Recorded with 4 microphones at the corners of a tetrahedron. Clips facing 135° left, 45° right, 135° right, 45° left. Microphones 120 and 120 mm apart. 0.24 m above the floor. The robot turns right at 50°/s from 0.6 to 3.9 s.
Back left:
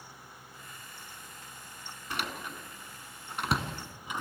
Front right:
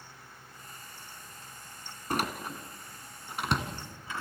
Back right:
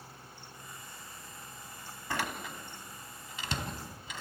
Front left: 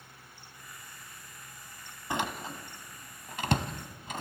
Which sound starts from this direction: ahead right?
A door slam, at 2.1 s.